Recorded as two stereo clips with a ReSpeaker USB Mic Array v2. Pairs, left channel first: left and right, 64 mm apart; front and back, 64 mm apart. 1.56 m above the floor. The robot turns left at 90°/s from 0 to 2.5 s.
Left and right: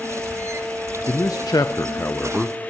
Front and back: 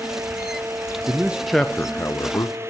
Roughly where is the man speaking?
Behind left.